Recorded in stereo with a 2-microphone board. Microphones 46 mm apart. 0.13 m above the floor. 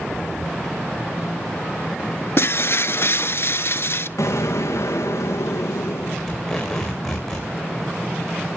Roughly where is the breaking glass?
Left.